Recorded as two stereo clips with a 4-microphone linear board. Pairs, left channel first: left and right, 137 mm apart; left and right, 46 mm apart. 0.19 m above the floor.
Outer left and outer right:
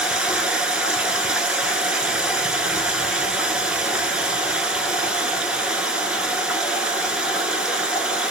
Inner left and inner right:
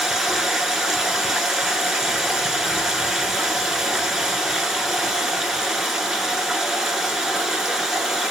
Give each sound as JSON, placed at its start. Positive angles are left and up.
{"t": 0.0, "sound": "running water", "side_deg": -5, "distance_m": 0.8}